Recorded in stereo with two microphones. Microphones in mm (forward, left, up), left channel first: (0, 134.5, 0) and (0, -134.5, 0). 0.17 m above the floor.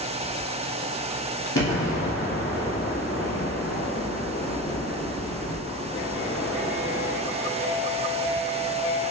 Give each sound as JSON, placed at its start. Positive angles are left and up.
{"t": 1.6, "sound": "an explosion", "side_deg": 65, "distance_m": 0.9}